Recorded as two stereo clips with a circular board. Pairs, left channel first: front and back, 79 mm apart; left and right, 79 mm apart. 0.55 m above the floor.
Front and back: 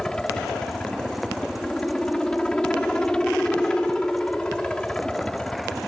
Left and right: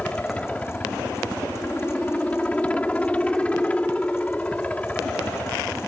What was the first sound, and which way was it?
A helicopter, 55° left.